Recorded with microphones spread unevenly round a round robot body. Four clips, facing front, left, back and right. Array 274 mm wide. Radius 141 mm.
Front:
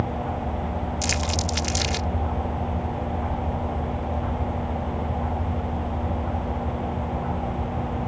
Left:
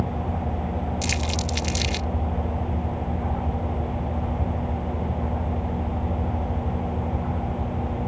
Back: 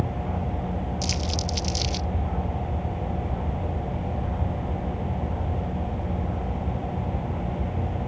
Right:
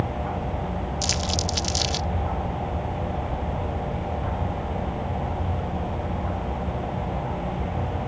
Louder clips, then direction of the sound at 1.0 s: Even, front 3 dB; 5° right.